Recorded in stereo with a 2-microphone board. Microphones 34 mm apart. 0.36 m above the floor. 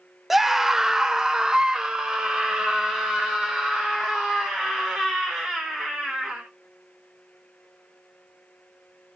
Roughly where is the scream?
Centre.